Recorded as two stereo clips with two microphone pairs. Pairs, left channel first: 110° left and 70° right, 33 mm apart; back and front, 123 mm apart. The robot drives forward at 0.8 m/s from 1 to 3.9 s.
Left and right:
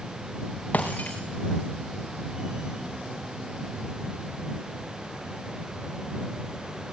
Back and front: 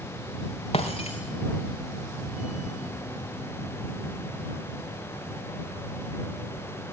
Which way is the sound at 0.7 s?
150° left.